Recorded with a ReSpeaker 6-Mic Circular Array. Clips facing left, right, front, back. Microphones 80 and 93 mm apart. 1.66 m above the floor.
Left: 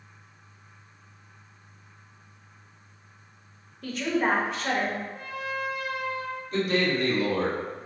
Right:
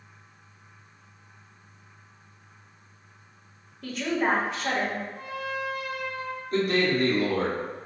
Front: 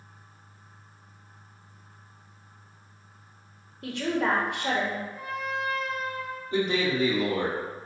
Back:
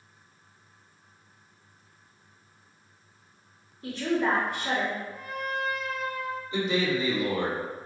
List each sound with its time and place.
3.8 s a woman speaking: straight ahead, 1.0 m
5.1 s a trumpet: 80° left, 1.3 m
6.5 s a man speaking: 45° right, 1.6 m